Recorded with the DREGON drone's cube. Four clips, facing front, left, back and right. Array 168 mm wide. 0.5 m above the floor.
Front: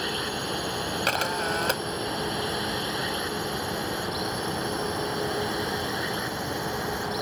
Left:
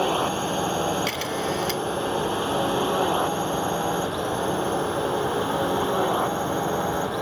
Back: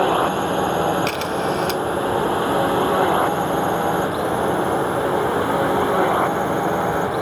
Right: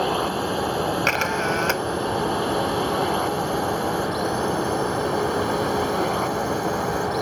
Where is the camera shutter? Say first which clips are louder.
Right 4 dB, back 6 dB; 65° right.